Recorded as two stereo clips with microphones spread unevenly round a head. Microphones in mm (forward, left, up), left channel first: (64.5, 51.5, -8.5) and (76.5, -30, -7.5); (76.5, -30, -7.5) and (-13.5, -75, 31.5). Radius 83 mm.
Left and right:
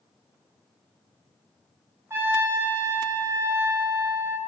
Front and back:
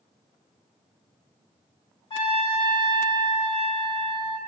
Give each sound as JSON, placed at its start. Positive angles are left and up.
{"t": 2.1, "sound": "a trumpet", "azimuth_deg": -20, "distance_m": 1.0}